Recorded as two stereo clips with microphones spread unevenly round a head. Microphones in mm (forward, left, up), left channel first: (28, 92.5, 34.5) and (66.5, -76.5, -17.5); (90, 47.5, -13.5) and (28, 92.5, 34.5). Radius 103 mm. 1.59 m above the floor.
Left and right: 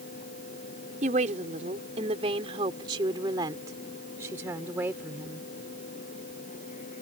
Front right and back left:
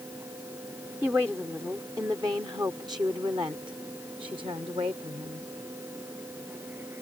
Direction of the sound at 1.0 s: 135° right.